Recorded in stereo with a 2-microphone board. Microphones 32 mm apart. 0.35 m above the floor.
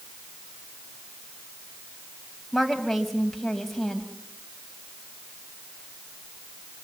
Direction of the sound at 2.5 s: 5° left (ahead or behind).